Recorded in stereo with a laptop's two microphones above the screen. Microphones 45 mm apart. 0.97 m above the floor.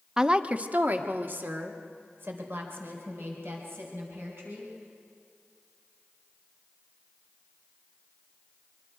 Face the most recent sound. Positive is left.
turn(degrees=-60)  # may be behind; listen again after turning